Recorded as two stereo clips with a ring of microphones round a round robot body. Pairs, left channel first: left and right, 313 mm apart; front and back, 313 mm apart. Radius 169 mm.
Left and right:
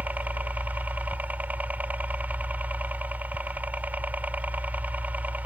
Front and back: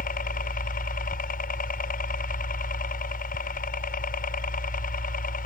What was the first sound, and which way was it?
A helicopter, 10° right.